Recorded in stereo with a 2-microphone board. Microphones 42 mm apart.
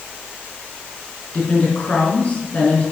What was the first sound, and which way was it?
A woman speaking, 30° left (ahead or behind).